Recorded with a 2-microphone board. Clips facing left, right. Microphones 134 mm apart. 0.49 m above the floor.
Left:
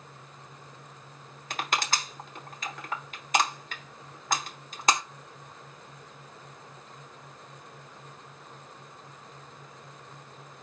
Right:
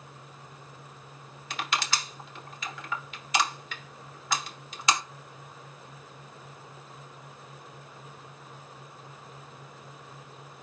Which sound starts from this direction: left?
Crushing, at 1.5 s.